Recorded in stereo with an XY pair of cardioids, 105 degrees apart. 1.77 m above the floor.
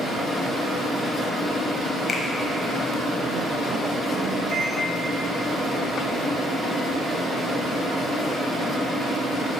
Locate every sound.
2.1 s a finger snap: 40° left, 1.2 m
4.5 s a microwave: 50° right, 1.7 m